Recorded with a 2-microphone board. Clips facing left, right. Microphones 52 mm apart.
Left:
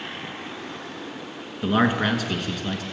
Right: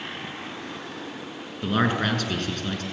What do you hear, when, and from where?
1.6 s a man speaking: 10° left (ahead or behind), 1.2 m